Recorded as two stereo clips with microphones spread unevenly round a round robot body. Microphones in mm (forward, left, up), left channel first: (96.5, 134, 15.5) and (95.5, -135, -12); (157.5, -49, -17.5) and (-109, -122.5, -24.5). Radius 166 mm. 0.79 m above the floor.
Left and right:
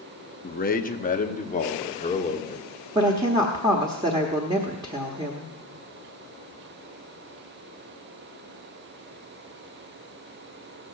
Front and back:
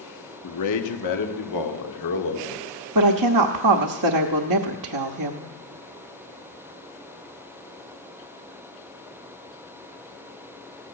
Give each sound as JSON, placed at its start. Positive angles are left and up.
{"t": 0.4, "sound": "a man speaking", "azimuth_deg": 35, "distance_m": 1.4}
{"t": 3.0, "sound": "a woman speaking", "azimuth_deg": -165, "distance_m": 1.0}